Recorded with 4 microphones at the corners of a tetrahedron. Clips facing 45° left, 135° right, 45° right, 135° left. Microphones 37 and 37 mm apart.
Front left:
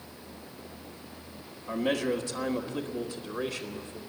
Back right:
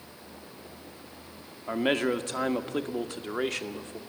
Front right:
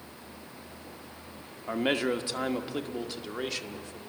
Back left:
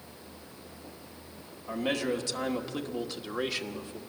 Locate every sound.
1.7 s a man speaking: 90° right, 1.3 m; by 4.0 s 150° right, 1.5 m